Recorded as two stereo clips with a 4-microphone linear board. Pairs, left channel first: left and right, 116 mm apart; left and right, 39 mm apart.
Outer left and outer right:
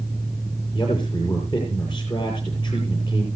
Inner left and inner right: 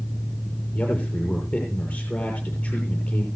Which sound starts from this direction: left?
A man speaking, at 0.7 s.